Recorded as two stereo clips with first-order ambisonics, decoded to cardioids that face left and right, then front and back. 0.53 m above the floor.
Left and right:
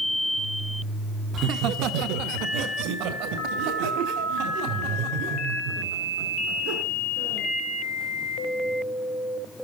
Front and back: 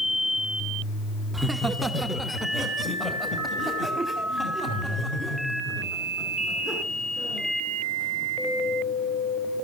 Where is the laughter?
100° right, 0.8 m; by 7.5 s 75° right, 6 m.